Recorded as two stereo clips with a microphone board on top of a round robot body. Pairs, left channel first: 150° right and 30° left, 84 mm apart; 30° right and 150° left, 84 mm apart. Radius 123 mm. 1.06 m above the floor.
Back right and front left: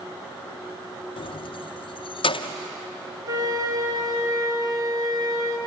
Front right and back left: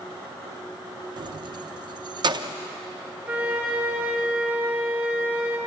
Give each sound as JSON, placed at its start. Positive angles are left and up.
{"t": 1.2, "sound": "keys jangling", "azimuth_deg": -175, "distance_m": 0.6}
{"t": 3.3, "sound": "a flute", "azimuth_deg": 80, "distance_m": 1.8}